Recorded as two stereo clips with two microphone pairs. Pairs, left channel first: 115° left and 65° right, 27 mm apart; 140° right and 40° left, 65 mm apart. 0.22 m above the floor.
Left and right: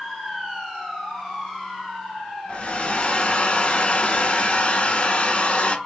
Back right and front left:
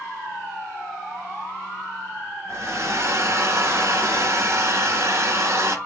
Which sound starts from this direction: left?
A hair dryer, at 2.5 s.